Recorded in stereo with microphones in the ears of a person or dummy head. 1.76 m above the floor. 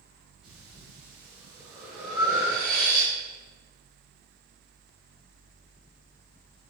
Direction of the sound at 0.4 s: 5° right (ahead or behind).